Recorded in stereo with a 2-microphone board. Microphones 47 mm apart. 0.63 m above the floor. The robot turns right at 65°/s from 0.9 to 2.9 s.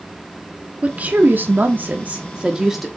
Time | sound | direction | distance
0.8 | a woman speaking | 130° right | 1.4 m